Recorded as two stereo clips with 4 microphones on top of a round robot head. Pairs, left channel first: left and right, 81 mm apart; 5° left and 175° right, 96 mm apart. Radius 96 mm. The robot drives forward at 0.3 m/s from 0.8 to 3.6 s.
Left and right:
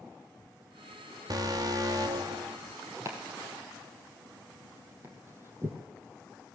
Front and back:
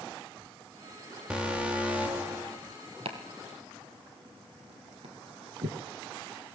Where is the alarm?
95° right, 3 m; by 2.6 s 105° right, 3 m.